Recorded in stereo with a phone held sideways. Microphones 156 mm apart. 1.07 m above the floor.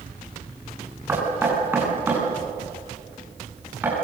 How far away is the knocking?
About 8 m.